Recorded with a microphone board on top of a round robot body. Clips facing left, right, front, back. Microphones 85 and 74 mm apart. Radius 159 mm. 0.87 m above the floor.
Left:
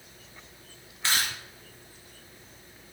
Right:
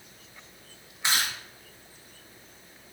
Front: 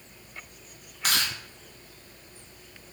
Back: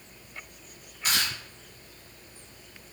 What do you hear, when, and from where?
1.0 s chewing: 15° right, 0.8 m